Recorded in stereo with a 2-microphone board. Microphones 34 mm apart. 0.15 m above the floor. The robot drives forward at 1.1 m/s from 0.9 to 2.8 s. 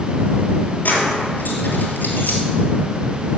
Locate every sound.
0.8 s keys jangling: 50° left (ahead or behind), 2 m; by 2.4 s 60° left (ahead or behind), 1.8 m